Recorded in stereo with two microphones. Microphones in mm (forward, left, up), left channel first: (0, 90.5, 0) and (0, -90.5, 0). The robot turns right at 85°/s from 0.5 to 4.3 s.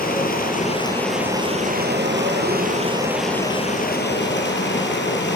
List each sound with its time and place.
0.0 s running water: 125° left, 6 m; by 5.4 s 90° left, 6 m